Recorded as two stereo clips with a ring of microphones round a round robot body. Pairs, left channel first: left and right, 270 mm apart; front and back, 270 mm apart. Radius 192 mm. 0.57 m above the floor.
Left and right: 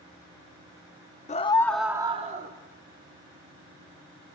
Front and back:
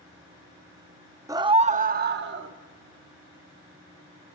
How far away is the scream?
About 0.6 m.